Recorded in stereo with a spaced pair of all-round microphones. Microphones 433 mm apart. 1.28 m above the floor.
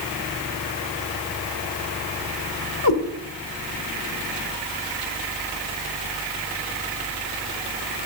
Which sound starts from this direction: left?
A cat meowing, at 2.8 s.